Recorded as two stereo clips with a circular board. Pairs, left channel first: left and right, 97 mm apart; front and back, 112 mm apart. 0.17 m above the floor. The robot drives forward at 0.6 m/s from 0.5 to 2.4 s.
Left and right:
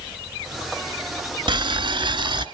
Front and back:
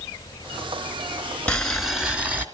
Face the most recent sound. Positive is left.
turn(degrees=-110)